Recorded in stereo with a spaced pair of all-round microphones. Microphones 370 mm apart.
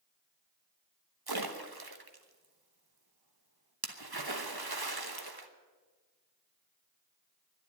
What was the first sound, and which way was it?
A splash, 75° right (ahead or behind).